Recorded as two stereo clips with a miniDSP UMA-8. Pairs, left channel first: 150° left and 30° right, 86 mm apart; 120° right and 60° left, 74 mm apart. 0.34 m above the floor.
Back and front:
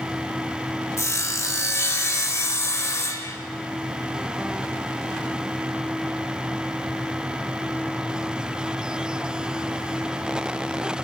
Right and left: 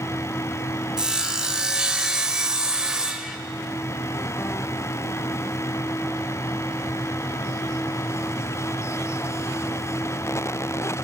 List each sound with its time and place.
1.0 s sawing: 135° left, 1.0 m